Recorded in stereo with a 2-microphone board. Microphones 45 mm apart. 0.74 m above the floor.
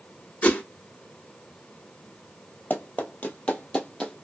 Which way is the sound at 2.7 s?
40° left (ahead or behind).